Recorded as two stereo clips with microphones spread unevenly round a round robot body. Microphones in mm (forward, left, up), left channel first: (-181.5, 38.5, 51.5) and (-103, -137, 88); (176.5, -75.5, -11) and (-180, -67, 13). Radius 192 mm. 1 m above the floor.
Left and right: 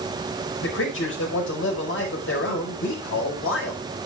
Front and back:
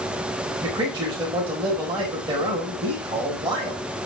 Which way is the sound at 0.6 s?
100° left.